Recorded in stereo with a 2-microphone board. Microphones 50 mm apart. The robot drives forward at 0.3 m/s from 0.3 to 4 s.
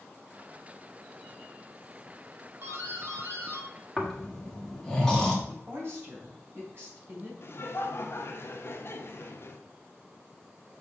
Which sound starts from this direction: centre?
Snoring, at 4.0 s.